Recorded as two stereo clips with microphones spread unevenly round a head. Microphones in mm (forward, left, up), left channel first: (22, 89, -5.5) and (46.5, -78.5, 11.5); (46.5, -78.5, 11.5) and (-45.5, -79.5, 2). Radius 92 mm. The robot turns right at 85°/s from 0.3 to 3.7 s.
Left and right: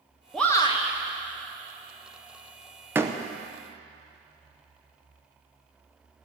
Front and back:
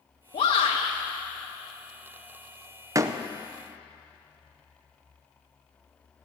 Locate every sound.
0.3 s a shout: 10° left, 1.1 m; by 0.9 s 60° left, 1.1 m
3.0 s a door slam: 145° right, 0.6 m; by 3.2 s 125° right, 0.6 m